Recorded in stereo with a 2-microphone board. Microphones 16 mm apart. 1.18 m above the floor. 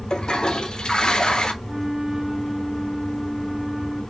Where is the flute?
35° right (ahead or behind), 2 m.